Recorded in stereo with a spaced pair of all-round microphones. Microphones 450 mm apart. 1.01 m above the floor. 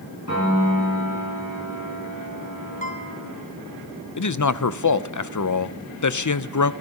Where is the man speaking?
45° left (ahead or behind), 0.5 m.